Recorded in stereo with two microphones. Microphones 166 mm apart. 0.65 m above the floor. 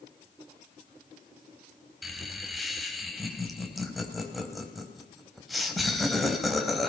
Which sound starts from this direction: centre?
Laughter, at 2.0 s.